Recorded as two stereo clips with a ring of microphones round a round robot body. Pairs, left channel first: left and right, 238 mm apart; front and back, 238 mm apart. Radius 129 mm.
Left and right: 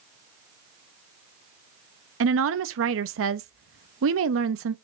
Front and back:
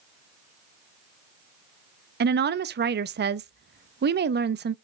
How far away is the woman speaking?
About 0.8 m.